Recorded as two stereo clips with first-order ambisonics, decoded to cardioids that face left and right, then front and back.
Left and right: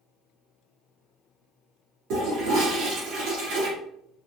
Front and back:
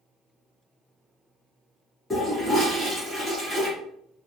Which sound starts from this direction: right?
A toilet flushing, at 2.1 s.